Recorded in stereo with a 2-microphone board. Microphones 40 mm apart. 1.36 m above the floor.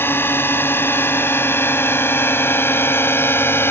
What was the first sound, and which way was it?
A drone, 75° left (ahead or behind).